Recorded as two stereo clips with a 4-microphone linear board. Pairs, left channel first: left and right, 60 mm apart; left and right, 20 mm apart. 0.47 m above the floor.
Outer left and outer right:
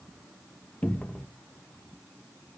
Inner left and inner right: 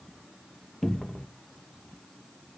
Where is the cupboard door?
20° left (ahead or behind), 0.7 m.